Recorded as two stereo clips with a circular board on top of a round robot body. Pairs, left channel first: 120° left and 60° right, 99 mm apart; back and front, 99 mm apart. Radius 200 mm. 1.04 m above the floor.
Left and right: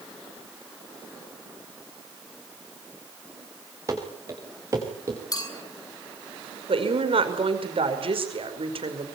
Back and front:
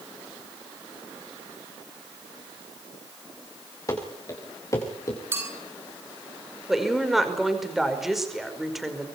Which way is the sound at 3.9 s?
120° right.